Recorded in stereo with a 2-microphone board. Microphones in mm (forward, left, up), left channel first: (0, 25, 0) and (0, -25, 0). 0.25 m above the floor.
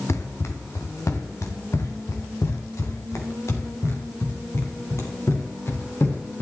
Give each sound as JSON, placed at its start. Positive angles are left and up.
{"t": 0.1, "sound": "running footsteps", "side_deg": 65, "distance_m": 1.9}